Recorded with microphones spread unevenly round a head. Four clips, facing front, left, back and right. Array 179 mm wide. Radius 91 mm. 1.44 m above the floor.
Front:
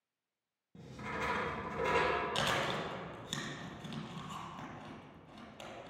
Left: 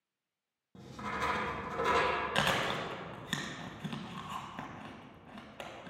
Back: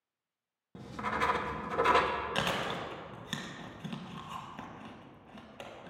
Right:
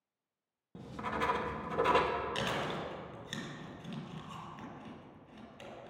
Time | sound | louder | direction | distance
0.8 | writing | right 2 dB, back 7 dB | 140° right | 0.9 m
2.4 | chewing | left 4 dB, back 1 dB | 110° left | 1.6 m